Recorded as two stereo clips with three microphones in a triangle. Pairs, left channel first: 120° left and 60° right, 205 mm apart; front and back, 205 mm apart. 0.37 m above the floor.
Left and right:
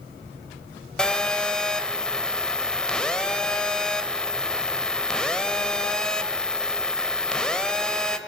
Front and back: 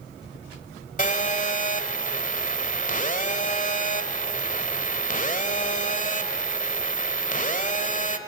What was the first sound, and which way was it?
A phone buzzing, 35° left.